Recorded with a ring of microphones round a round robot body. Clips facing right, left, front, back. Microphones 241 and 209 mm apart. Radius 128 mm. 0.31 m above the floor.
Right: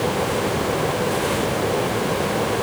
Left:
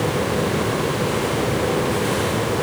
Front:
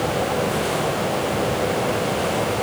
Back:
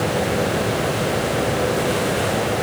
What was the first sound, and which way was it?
Only background noise.